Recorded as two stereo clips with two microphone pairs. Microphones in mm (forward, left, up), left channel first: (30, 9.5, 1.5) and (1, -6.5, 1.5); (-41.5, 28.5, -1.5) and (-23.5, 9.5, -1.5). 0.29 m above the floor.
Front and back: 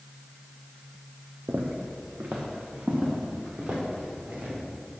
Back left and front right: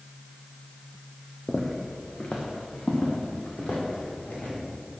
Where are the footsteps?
140° right, 0.9 m; by 4.5 s 170° left, 3.5 m.